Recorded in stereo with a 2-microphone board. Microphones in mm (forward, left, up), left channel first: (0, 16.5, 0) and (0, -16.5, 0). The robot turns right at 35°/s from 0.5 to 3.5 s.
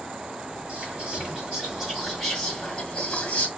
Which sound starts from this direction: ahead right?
Whispering, at 0.7 s.